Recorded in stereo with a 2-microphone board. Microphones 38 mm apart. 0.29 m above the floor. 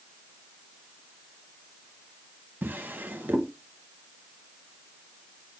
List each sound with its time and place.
2.6 s a drawer: 60° right (ahead or behind), 0.8 m